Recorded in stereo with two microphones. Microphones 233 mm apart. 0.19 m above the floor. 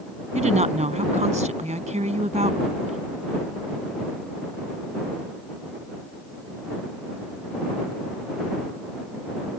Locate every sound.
0.3 s a woman speaking: 30° right (ahead or behind)